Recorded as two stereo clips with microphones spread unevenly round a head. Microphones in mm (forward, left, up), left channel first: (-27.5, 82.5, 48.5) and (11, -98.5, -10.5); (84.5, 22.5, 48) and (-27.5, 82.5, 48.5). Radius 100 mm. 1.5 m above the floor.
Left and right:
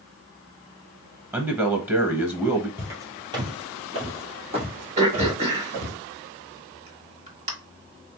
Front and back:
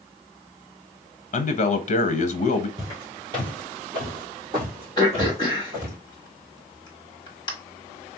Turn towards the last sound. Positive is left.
turn(degrees=-15)